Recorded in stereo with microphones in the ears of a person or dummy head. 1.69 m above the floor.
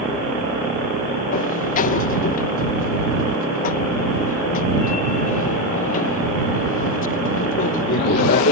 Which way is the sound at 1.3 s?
40° left (ahead or behind).